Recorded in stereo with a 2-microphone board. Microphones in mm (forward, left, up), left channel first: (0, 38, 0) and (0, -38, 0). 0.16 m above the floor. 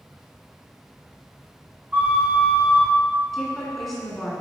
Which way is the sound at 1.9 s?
20° right (ahead or behind).